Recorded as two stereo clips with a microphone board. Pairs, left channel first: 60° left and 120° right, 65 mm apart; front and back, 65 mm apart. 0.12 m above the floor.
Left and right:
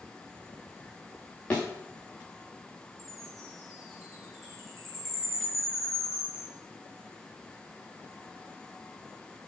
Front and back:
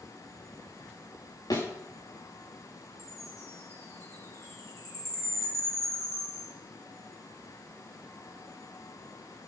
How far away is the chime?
About 5.5 m.